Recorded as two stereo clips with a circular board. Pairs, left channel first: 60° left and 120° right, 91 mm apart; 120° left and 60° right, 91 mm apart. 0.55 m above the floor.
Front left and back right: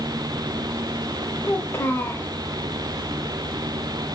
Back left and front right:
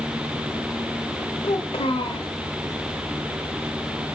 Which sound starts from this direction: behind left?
A child speaking, at 1.4 s.